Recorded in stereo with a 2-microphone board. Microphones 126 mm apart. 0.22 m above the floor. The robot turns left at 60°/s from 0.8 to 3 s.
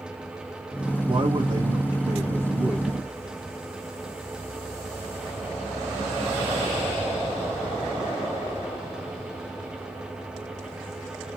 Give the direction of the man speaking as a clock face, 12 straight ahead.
2 o'clock.